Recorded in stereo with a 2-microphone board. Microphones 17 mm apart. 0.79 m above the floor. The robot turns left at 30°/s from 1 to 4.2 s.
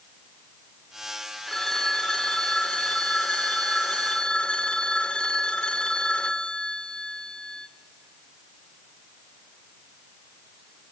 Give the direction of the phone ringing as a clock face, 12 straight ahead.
7 o'clock.